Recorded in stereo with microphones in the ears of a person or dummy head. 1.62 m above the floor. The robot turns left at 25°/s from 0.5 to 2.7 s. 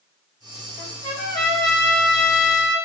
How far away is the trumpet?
About 1.7 m.